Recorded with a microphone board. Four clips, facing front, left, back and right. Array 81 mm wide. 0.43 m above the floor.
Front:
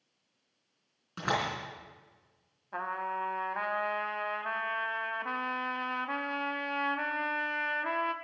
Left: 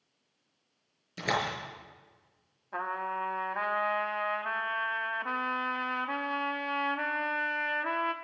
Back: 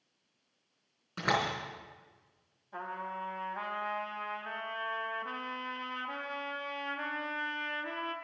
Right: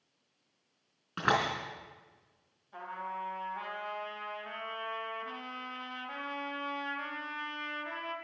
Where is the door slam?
85° right, 3.5 m.